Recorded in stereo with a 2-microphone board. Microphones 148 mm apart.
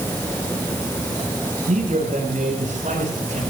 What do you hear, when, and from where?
1.7 s a man speaking: 60° right (ahead or behind), 7.5 m